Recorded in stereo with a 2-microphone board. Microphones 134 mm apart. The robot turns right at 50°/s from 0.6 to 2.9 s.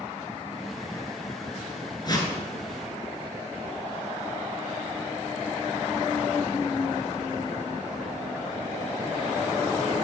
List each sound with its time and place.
2.0 s a whoosh: 35° left (ahead or behind), 1.2 m; by 2.3 s 20° left (ahead or behind), 1.2 m